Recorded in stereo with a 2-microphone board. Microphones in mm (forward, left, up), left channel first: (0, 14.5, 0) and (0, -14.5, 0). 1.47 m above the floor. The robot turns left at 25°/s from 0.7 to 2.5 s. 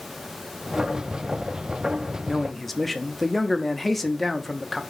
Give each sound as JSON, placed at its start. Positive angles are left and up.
{"t": 2.3, "sound": "a man speaking", "side_deg": -5, "distance_m": 0.5}